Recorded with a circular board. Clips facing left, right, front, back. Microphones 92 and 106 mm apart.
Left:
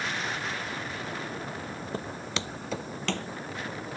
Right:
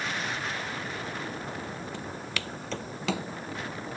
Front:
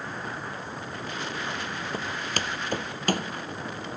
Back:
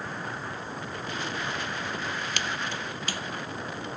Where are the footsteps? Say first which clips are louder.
Left 2 dB, front 1 dB; 50° left; by 3.3 s 15° right.